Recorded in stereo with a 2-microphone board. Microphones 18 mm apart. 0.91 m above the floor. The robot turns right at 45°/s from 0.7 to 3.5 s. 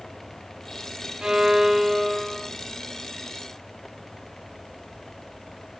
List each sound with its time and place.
1.2 s a violin: 40° right, 0.6 m; by 2.5 s 15° left, 0.6 m